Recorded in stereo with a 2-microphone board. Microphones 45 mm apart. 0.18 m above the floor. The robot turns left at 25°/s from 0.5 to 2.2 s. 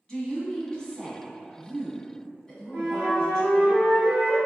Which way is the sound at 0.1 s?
20° left (ahead or behind).